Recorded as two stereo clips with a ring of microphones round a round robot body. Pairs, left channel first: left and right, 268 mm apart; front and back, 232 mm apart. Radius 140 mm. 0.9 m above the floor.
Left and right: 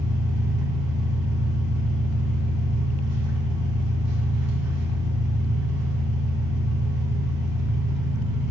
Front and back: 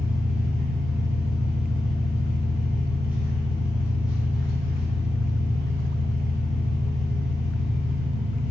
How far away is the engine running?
About 0.9 m.